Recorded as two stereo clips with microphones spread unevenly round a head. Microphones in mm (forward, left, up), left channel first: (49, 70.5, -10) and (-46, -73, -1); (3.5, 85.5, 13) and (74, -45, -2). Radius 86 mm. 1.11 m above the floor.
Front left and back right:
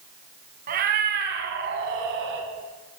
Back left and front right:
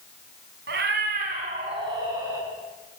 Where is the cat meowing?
90° right, 2 m; by 2.5 s 140° right, 2.5 m.